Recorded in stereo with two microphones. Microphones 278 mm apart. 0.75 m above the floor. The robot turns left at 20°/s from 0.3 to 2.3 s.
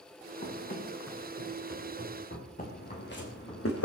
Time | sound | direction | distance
0.4 | running footsteps | 25° left (ahead or behind) | 5.5 m
2.6 | footsteps | 30° left (ahead or behind) | 3.5 m